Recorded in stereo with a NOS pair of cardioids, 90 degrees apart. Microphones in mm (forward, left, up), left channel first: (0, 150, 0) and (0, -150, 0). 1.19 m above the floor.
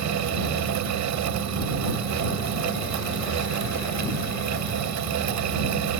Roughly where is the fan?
Right.